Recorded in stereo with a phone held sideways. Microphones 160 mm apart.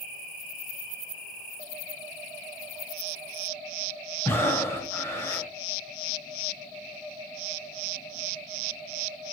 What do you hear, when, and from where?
4.2 s breathing: 15° left (ahead or behind), 4 m